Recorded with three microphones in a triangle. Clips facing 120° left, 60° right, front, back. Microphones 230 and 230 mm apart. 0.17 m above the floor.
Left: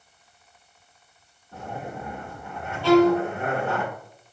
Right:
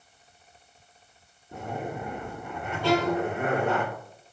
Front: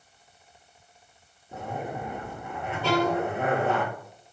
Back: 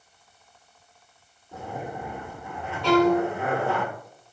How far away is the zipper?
About 1.2 m.